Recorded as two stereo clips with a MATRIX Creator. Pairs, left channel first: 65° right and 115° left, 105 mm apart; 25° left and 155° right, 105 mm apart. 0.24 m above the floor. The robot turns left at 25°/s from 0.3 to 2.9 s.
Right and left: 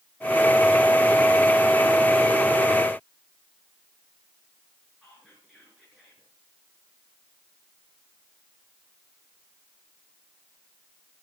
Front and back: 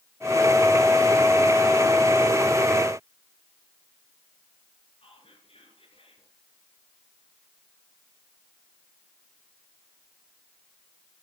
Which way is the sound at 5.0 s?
25° left.